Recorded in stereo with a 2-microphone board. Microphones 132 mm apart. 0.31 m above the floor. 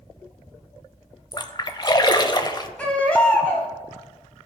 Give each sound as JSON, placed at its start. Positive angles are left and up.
{"t": 1.3, "sound": "a splash", "side_deg": 35, "distance_m": 0.5}
{"t": 2.8, "sound": "a baby crying", "side_deg": 10, "distance_m": 1.7}